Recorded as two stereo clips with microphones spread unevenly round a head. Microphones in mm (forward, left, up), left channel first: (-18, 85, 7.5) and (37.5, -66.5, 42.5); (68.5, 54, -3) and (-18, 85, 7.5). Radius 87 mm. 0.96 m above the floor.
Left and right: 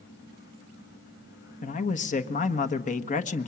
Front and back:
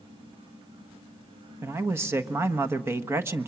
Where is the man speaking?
95° left, 1.4 m.